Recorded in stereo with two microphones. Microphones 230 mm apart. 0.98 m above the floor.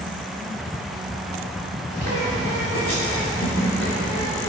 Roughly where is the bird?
Left.